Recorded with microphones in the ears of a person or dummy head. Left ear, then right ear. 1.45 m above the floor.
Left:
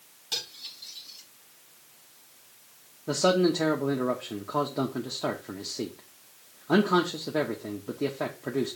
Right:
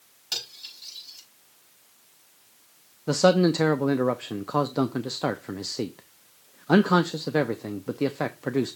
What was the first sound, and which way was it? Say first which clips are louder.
Cutlery clinking: right 1 dB; 45° right (ahead or behind).